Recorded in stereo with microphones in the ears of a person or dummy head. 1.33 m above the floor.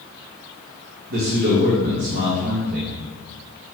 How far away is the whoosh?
No whoosh in this recording.